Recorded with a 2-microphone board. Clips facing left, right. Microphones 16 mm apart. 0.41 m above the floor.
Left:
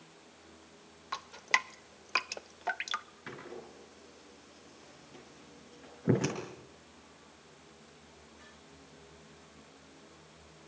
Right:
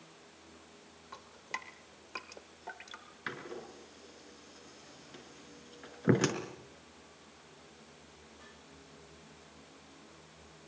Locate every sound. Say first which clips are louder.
1.1 s dripping: left 12 dB; 45° left (ahead or behind), 0.6 m
3.3 s a door slam: right 4 dB; 40° right (ahead or behind), 4 m